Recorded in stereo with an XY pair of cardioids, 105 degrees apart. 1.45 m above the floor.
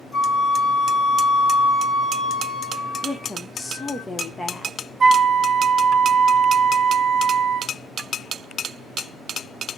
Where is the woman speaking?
20° left, 0.9 m.